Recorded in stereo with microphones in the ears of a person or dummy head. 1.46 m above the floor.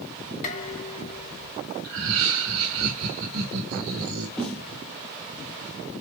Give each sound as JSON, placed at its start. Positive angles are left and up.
{"t": 0.4, "sound": "dishes clattering", "side_deg": 45, "distance_m": 3.0}
{"t": 1.8, "sound": "laughter", "side_deg": -80, "distance_m": 2.5}
{"t": 4.4, "sound": "a snare drum", "side_deg": 5, "distance_m": 1.2}